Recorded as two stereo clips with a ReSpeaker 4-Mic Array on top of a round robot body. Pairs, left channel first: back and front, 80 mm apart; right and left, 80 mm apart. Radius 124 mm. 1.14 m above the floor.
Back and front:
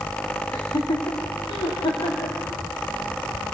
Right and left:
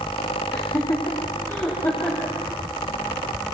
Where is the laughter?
140° right, 3.5 m; by 2.4 s 160° right, 4.5 m.